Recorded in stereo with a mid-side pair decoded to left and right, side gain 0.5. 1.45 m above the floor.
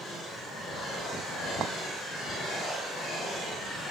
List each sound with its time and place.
1.6 s a clink: 55° right, 1.3 m